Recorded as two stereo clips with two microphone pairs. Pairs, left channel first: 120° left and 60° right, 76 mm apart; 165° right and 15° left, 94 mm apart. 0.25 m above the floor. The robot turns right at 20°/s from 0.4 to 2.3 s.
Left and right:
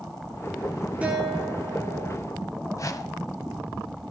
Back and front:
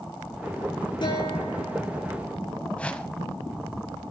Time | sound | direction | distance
1.0 | a guitar | 135° right | 7.5 m
2.8 | a whoosh | 125° left | 1.1 m